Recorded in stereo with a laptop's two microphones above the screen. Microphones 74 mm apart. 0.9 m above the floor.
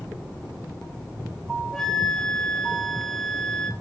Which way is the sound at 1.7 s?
5° left (ahead or behind).